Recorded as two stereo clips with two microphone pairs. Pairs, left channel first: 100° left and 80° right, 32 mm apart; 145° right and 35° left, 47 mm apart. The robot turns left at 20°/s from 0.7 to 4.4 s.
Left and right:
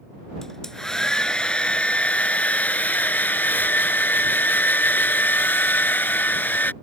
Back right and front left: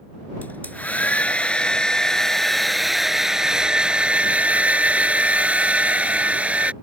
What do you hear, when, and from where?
0.4 s a hair dryer: 170° left; by 6.7 s 100° left